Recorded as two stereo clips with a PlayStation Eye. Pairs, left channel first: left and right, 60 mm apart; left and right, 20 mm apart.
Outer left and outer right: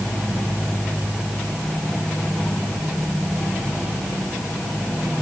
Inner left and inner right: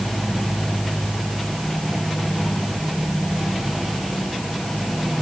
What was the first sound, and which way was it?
Only background noise.